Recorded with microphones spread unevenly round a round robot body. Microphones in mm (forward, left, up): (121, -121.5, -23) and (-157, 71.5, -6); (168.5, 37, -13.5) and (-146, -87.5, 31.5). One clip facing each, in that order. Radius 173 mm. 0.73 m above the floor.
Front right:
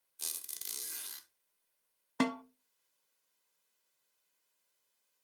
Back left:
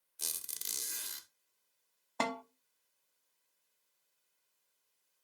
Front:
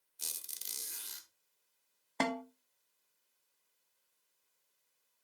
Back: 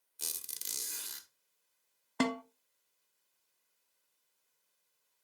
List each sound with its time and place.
0.2 s a squeak: 160° left, 1.0 m
2.2 s a snare drum: 100° right, 0.7 m